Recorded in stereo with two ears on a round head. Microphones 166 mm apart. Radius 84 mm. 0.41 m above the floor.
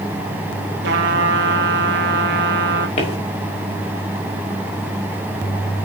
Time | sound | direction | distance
0.8 | a trumpet | 75° right (ahead or behind) | 1.9 m
3.0 | footsteps | 35° left (ahead or behind) | 5.5 m